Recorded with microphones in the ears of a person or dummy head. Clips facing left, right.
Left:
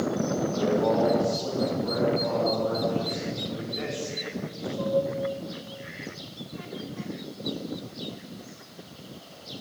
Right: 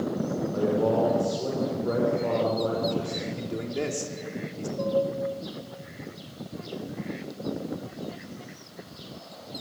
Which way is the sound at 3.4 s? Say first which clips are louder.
Right 3 dB; 50° right (ahead or behind).